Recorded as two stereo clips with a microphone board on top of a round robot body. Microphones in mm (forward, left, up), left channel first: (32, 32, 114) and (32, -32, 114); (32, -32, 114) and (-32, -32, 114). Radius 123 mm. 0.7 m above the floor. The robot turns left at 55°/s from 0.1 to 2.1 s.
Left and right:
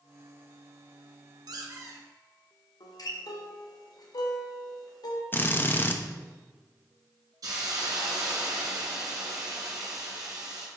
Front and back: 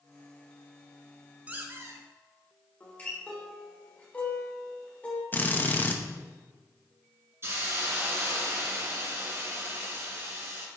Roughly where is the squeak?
Right.